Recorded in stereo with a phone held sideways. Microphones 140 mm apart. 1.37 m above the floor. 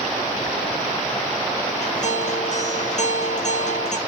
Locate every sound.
1.8 s a guitar: 55° left (ahead or behind), 1.9 m